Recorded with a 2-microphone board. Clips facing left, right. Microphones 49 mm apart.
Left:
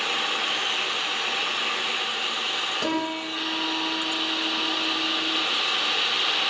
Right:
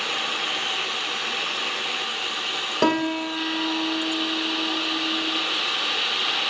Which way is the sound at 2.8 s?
60° right (ahead or behind).